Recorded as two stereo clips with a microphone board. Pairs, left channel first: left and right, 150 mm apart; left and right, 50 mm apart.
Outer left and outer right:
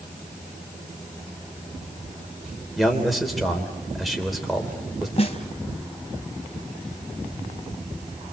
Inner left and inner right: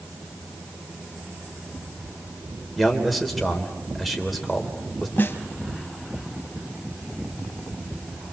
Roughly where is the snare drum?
Left.